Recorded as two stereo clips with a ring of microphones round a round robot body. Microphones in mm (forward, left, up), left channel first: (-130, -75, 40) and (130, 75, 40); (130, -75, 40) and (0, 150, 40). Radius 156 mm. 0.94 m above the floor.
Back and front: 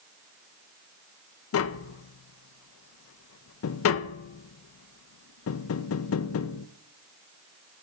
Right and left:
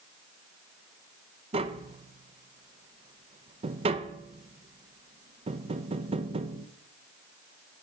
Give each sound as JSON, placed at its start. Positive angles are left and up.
{"t": 1.5, "sound": "tapping", "azimuth_deg": -175, "distance_m": 0.5}